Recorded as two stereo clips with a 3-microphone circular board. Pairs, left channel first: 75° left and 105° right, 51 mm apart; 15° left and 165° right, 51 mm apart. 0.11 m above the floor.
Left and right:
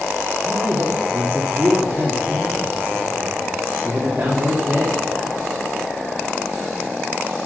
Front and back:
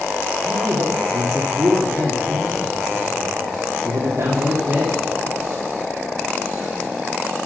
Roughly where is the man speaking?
Behind right.